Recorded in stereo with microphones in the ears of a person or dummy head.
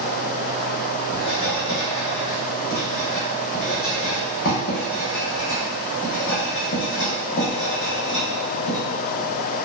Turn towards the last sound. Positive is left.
turn(degrees=65)  # may be behind; listen again after turning